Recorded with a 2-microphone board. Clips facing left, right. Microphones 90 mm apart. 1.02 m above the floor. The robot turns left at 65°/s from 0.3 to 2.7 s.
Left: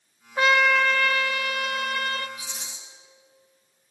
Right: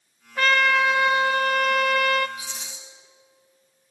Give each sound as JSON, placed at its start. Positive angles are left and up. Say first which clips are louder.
{"t": 0.4, "sound": "a trumpet", "louder": "even", "azimuth_deg": 20, "distance_m": 0.7}
{"t": 2.4, "sound": "a rattle", "louder": "right 2 dB", "side_deg": 30, "distance_m": 7.0}